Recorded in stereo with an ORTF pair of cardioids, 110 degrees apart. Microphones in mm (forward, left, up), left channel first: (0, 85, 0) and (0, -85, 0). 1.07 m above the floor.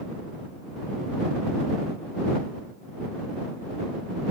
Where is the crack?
I don't hear a crack.